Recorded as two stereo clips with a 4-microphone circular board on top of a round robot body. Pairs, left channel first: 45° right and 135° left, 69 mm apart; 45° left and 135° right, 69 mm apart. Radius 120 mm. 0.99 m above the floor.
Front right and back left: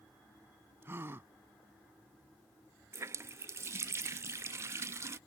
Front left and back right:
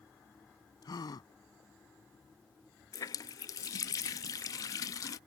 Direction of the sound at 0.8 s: 75° left.